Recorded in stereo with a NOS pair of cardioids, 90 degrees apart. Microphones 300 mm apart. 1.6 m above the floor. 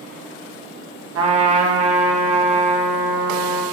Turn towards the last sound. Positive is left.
turn(degrees=-50)